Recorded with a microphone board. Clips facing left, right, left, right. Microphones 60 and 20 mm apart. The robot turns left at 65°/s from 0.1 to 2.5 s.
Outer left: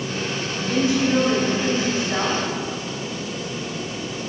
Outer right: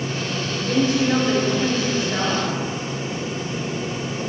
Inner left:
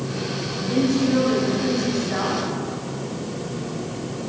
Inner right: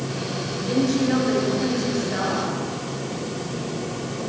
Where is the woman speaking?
105° right, 2 m; by 2.4 s 140° left, 2 m.